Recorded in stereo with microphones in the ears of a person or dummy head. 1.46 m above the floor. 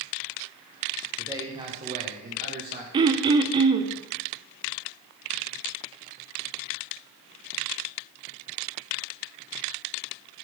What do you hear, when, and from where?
1.2 s a man speaking: 15° right (ahead or behind), 1.5 m; by 2.8 s 50° right (ahead or behind), 2.5 m
2.9 s throat clearing: 25° right (ahead or behind), 0.6 m